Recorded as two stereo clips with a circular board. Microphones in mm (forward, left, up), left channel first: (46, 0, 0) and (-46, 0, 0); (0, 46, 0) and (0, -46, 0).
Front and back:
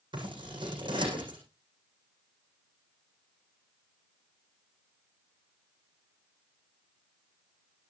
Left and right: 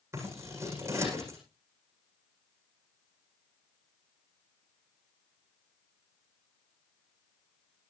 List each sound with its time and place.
0.1 s scissors: 150° right, 8.5 m